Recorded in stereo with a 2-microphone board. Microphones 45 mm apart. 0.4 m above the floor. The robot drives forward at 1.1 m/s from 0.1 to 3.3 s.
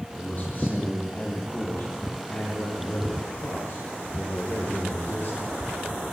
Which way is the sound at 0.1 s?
40° left (ahead or behind).